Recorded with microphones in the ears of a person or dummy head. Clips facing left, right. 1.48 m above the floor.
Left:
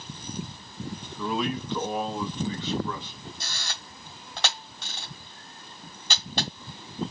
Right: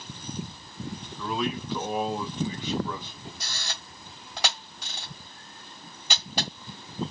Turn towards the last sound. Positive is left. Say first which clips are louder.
# even
turn(degrees=-10)  # may be behind; listen again after turning